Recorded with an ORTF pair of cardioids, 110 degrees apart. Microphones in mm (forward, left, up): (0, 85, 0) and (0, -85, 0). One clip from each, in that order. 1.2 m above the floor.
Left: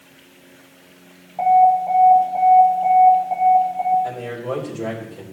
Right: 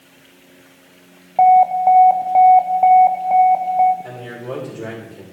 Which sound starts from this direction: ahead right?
An alarm, at 1.4 s.